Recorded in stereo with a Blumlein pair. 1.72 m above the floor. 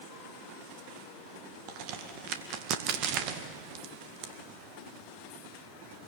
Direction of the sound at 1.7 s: 40° right.